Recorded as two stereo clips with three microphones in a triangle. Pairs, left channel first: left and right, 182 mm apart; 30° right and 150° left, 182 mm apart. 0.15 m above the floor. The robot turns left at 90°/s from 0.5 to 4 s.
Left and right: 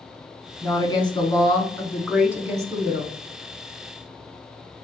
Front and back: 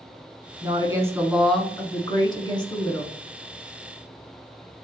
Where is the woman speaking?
135° left, 1.1 m; by 3.1 s 90° right, 1.1 m.